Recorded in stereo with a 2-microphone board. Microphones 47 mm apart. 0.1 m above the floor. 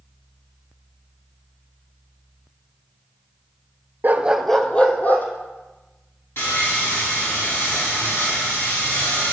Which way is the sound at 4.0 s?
45° right (ahead or behind).